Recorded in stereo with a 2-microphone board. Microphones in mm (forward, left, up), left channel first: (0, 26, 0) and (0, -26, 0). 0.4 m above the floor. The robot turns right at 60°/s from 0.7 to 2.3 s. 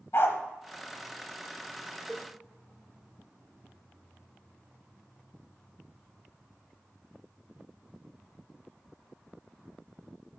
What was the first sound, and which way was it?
A dog barking, 55° left (ahead or behind).